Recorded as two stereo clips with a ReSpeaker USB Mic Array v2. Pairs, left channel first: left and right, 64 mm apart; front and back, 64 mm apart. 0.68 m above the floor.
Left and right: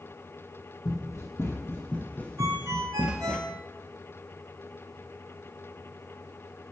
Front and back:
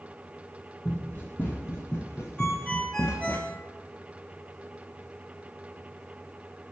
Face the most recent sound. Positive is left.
turn(degrees=-70)